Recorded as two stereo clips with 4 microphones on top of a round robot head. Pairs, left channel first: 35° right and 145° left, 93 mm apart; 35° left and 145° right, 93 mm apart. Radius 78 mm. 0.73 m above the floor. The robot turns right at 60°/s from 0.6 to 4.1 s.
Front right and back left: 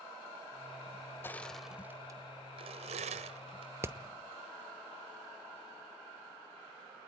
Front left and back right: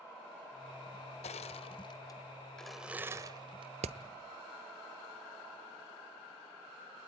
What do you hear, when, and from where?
1.2 s crushing: 35° left, 1.1 m; by 3.7 s 175° right, 1.1 m
3.8 s hammering: 145° right, 0.8 m; by 4.0 s 140° right, 0.8 m